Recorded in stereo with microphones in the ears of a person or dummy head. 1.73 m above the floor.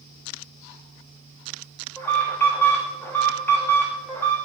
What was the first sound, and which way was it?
An alarm, 10° left (ahead or behind).